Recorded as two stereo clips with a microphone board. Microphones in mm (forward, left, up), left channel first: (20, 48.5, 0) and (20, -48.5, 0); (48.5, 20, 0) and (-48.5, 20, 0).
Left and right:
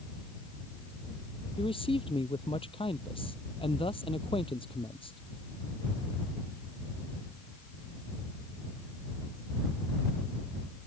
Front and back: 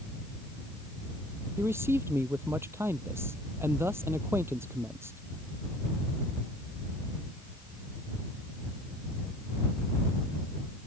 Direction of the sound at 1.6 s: 115° left.